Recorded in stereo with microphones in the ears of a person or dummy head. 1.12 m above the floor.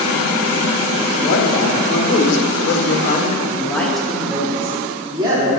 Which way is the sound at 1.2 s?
85° left.